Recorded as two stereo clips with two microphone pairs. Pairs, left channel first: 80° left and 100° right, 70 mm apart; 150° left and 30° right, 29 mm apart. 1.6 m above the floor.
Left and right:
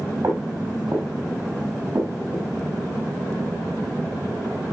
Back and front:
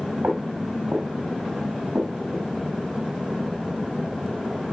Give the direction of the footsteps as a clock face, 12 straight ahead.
2 o'clock.